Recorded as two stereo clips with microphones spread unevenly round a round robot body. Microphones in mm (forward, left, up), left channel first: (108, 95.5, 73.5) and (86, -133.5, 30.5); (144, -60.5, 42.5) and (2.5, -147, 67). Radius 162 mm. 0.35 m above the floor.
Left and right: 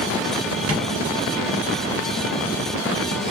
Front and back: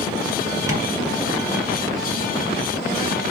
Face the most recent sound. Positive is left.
turn(degrees=-75)